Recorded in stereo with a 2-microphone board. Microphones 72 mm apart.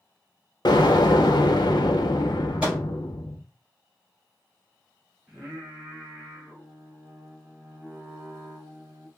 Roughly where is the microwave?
Centre.